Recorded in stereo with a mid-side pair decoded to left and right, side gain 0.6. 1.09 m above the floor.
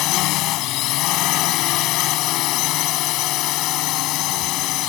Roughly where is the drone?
Ahead left.